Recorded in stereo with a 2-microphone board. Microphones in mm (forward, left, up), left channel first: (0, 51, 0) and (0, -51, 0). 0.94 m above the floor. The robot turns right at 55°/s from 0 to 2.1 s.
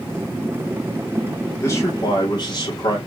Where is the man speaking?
25° left (ahead or behind), 1.9 m; by 3.0 s 50° left (ahead or behind), 1.9 m.